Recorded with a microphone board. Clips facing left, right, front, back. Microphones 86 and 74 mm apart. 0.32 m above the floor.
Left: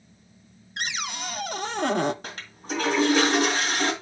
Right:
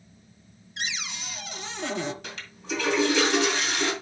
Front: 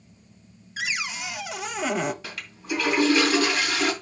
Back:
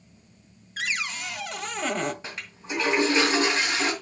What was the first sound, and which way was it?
A cupboard door, 80° left.